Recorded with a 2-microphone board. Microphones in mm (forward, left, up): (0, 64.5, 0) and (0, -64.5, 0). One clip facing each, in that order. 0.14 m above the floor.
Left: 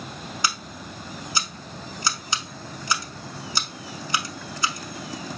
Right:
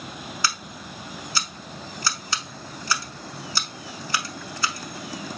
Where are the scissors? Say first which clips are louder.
Left 1 dB; 20° left (ahead or behind), 0.7 m.